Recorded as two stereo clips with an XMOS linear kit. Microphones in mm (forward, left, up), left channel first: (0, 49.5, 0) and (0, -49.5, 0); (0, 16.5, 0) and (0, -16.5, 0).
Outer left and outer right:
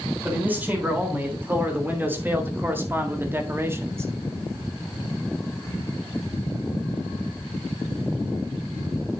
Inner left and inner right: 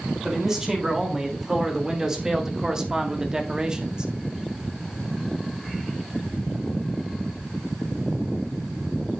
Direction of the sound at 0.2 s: 15° right (ahead or behind).